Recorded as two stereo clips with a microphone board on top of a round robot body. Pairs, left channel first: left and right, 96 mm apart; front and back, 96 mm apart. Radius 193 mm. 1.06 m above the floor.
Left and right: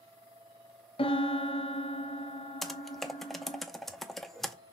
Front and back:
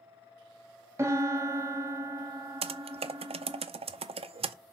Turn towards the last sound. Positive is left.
turn(degrees=180)